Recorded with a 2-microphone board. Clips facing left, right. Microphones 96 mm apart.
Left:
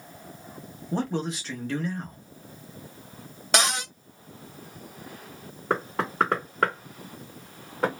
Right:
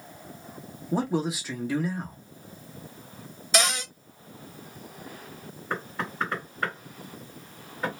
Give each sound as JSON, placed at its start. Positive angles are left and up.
{"t": 0.9, "sound": "a man speaking", "side_deg": -10, "distance_m": 0.9}
{"t": 3.5, "sound": "a cupboard door", "side_deg": 60, "distance_m": 1.3}
{"t": 5.7, "sound": "knocking", "side_deg": 75, "distance_m": 1.7}